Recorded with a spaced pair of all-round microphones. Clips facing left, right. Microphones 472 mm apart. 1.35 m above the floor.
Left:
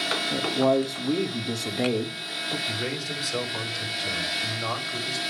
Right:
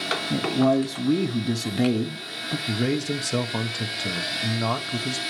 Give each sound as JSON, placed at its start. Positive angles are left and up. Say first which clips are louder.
{"t": 0.3, "sound": "a man speaking", "louder": "right 2 dB", "side_deg": -35, "distance_m": 0.6}
{"t": 2.7, "sound": "a man speaking", "louder": "right 12 dB", "side_deg": -65, "distance_m": 0.8}